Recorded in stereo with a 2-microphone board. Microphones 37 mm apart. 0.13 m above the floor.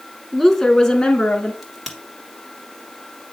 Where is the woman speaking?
Centre (ahead or behind), 1.2 m; by 1.5 s 35° left (ahead or behind), 1.4 m.